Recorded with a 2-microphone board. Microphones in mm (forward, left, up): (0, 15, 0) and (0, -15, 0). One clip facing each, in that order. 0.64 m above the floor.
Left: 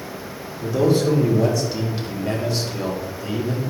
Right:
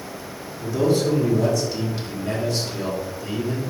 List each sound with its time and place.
0.6 s a man speaking: 15° left (ahead or behind), 2 m